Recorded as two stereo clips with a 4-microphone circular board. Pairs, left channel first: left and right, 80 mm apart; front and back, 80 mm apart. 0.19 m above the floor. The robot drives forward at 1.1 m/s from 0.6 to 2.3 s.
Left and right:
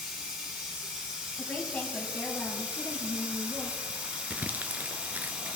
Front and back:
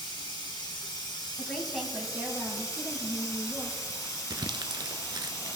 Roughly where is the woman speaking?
Ahead left.